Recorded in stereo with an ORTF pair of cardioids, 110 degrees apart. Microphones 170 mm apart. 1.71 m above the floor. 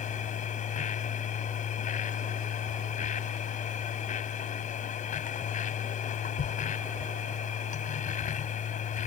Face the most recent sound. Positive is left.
turn(degrees=50)